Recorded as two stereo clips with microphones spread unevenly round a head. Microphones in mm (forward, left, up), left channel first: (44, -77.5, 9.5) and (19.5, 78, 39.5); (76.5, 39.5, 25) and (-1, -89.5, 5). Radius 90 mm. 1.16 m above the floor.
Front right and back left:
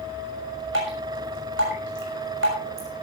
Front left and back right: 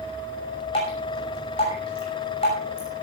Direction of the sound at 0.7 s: 120° left.